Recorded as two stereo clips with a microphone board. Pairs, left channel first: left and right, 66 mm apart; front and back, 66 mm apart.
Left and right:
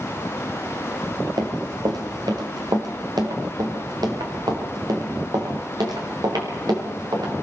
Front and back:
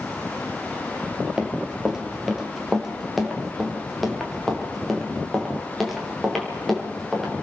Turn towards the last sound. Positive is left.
turn(degrees=-90)